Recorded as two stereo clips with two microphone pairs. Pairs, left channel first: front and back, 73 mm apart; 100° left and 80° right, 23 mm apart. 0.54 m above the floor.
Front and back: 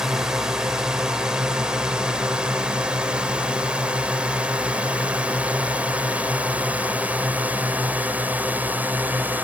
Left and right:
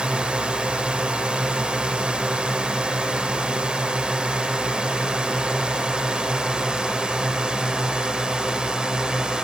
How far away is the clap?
No clap in this recording.